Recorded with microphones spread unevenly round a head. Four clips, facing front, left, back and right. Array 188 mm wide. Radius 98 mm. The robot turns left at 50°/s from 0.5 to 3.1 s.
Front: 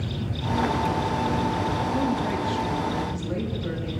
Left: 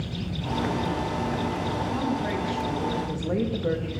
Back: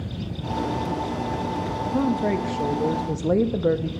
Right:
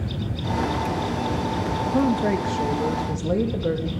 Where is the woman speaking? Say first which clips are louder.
Right 10 dB, back 2 dB; 100° right, 1.1 m; by 3.9 s 165° right, 1.1 m.